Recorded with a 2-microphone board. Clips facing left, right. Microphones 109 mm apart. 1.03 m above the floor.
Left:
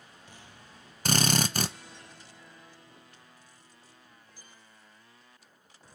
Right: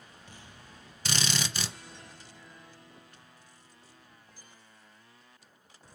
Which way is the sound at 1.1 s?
50° left (ahead or behind).